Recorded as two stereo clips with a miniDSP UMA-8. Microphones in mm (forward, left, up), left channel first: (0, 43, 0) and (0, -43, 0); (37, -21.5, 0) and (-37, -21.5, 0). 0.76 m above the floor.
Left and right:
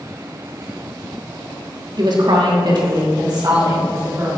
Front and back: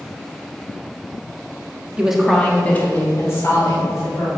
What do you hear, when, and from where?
2.0 s a woman speaking: 105° right, 1.2 m; by 4.3 s 45° right, 4 m